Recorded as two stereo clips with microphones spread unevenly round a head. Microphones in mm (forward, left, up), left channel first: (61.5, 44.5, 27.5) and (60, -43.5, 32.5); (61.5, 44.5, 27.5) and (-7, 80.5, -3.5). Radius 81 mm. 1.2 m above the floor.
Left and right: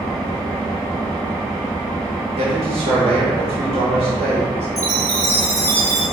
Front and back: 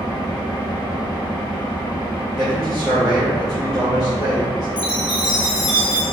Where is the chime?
40° right, 1.6 m.